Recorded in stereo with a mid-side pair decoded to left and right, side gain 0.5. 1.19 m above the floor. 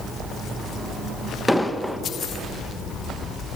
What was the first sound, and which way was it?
An explosion, straight ahead.